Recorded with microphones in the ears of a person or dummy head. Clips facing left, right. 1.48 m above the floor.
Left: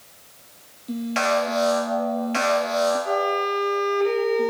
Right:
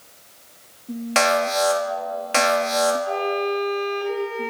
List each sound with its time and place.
1.1 s an alarm: 65° right (ahead or behind), 2.5 m
3.0 s a violin: 60° left (ahead or behind), 2.5 m